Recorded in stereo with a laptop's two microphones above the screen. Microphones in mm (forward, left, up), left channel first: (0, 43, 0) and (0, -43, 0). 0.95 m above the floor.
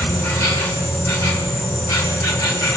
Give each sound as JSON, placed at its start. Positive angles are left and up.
{"t": 0.0, "sound": "an insect", "side_deg": 40, "distance_m": 6.5}